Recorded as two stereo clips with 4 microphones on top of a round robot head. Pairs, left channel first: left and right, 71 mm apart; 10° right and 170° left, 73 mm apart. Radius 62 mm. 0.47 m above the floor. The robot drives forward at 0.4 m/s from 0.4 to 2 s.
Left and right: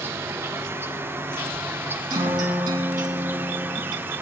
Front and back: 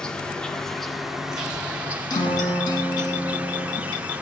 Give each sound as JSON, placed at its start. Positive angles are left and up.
{"t": 0.0, "sound": "an insect", "azimuth_deg": -80, "distance_m": 1.2}
{"t": 2.1, "sound": "a guitar", "azimuth_deg": -55, "distance_m": 2.0}